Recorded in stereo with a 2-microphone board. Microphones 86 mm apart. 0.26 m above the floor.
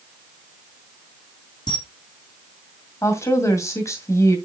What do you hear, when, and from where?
1.7 s a camera shutter: 55° left (ahead or behind), 2 m
3.0 s a woman speaking: 35° left (ahead or behind), 1.9 m